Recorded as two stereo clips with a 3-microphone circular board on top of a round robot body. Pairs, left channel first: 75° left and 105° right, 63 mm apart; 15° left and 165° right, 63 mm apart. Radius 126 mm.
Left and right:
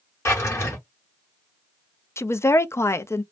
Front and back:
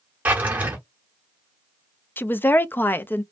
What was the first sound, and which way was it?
A drawer, 125° left.